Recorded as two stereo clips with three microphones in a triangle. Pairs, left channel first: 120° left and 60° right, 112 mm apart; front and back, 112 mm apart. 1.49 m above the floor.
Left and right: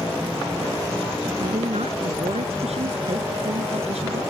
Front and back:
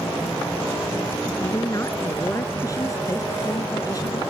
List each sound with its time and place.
1.4 s a woman speaking: 60° right; by 4.2 s 55° right